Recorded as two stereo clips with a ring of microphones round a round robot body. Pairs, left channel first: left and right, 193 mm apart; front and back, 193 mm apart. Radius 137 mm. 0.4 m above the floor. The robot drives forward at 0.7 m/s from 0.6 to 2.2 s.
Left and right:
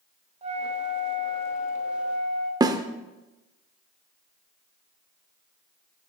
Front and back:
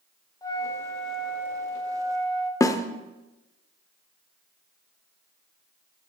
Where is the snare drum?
50° right, 0.6 m.